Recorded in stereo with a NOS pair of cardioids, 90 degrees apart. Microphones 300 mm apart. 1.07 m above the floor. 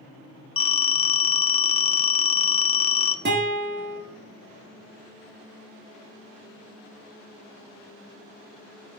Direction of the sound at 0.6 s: 20° left.